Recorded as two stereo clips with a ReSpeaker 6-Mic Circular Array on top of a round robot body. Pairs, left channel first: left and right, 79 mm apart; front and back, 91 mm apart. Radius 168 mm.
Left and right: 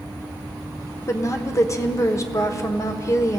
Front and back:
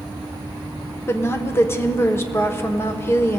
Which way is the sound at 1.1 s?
55° left.